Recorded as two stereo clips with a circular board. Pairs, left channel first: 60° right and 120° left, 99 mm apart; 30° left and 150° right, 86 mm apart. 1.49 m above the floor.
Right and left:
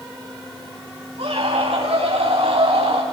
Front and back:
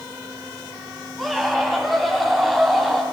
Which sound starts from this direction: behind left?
A scream, at 1.2 s.